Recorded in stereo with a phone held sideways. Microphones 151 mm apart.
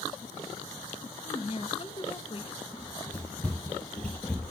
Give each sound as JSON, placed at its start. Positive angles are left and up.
{"t": 1.2, "sound": "a woman speaking", "side_deg": 35, "distance_m": 1.2}
{"t": 2.7, "sound": "running footsteps", "side_deg": 10, "distance_m": 2.0}